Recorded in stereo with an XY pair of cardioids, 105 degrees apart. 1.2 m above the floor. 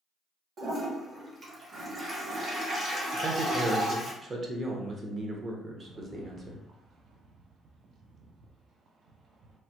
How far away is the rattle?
About 0.5 m.